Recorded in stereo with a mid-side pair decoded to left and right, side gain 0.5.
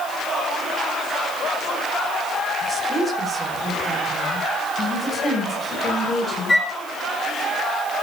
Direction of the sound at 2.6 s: 30° right.